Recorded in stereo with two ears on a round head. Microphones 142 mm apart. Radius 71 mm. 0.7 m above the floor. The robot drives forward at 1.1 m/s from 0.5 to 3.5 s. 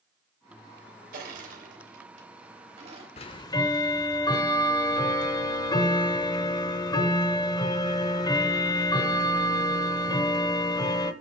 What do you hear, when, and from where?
1.1 s crushing: 60° right (ahead or behind), 3 m; by 3.1 s 40° right (ahead or behind), 4.5 m
3.2 s ticking: 40° left (ahead or behind), 0.7 m; by 11.1 s 25° left (ahead or behind), 1.0 m